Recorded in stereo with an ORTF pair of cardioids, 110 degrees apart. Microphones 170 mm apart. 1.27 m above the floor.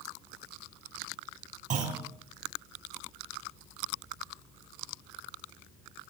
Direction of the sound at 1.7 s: 50° right.